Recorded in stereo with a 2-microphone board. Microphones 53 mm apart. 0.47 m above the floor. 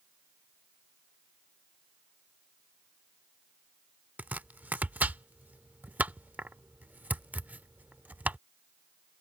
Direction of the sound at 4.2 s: 35° right (ahead or behind).